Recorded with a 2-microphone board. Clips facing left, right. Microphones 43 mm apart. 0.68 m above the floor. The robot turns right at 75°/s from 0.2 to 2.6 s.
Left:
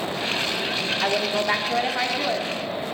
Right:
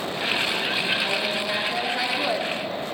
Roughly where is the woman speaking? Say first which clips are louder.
Left 2 dB; left.